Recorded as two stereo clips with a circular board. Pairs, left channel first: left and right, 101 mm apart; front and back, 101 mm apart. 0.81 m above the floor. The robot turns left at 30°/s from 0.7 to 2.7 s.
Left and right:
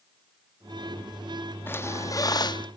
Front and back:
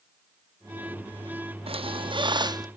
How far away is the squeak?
About 0.7 m.